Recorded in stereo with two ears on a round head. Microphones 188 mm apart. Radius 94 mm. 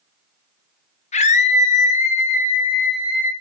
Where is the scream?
35° left (ahead or behind), 1.6 m; by 3.3 s 40° left (ahead or behind), 3 m.